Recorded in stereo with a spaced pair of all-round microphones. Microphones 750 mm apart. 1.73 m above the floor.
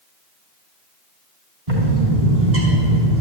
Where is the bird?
50° right (ahead or behind), 4 m.